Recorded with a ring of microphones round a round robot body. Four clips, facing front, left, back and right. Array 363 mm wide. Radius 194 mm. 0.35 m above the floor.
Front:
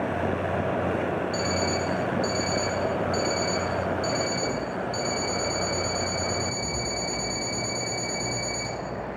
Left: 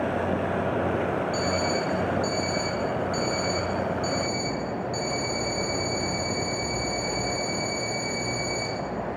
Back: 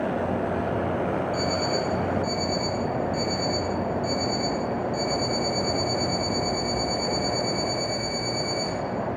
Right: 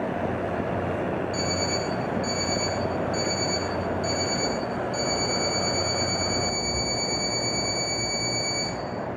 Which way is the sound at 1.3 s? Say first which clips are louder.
Left 2 dB, back 1 dB; 20° left.